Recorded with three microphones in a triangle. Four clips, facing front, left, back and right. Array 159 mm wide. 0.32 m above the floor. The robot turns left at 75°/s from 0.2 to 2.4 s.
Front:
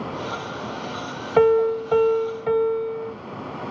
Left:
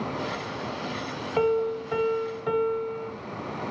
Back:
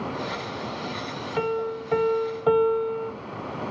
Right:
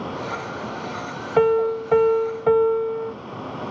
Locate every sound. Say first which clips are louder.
1.4 s a piano: right 6 dB, front 11 dB; 35° right, 1.1 m; by 3.1 s 110° right, 1.1 m